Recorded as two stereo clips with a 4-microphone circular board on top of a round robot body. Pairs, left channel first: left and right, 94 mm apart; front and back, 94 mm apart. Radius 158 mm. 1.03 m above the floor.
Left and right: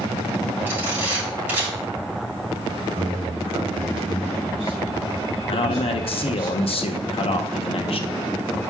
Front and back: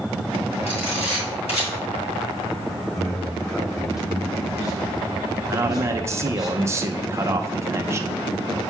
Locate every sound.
0.7 s a camera shutter: 15° right, 3 m
2.9 s a man speaking: 55° right, 2 m
5.5 s a man speaking: 115° left, 0.7 m